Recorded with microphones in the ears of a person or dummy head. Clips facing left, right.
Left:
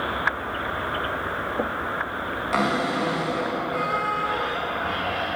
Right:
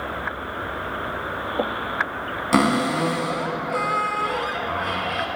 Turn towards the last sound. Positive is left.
turn(degrees=-50)  # may be behind; listen again after turning